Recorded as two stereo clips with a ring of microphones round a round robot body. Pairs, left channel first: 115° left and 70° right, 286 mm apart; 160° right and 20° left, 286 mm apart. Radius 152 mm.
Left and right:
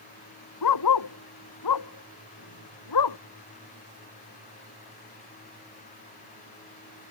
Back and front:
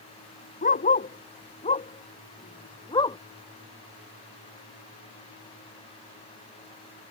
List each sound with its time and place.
0.6 s a dog barking: 140° left; by 3.2 s 125° left